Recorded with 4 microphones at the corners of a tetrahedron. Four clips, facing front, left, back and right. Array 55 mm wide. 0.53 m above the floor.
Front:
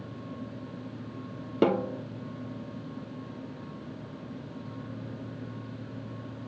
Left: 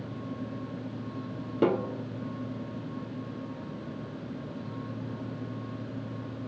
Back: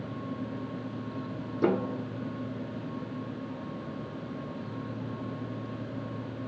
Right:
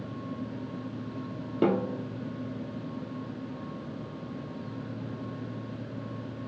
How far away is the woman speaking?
I don't hear a woman speaking.